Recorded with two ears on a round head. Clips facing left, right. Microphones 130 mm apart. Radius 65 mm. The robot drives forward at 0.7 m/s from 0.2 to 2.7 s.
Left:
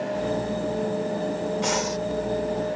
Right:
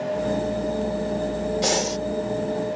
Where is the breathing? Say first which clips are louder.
Right 2 dB; 40° right (ahead or behind); by 2.0 s 30° right (ahead or behind).